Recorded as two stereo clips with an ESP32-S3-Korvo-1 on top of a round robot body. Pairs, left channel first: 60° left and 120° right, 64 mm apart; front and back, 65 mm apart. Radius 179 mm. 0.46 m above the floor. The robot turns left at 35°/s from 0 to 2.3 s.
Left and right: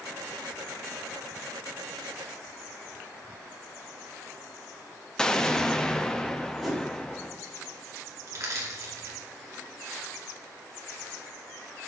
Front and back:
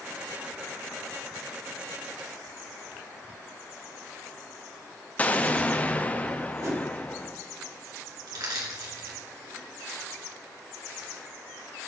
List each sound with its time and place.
5.2 s an explosion: straight ahead, 0.9 m
6.6 s a whoosh: 150° left, 3.5 m
8.3 s crushing: 160° right, 2 m